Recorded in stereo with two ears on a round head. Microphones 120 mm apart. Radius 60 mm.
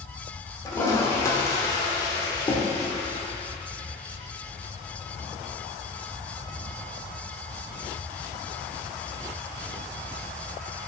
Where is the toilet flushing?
25° left (ahead or behind), 1.5 m.